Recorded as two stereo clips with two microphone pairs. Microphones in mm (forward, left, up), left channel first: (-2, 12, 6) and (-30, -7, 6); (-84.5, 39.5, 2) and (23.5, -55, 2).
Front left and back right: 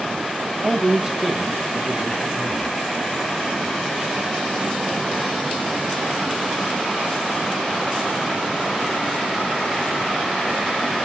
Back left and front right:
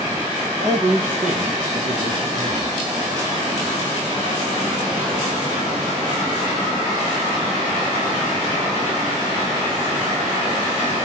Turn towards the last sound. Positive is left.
turn(degrees=-55)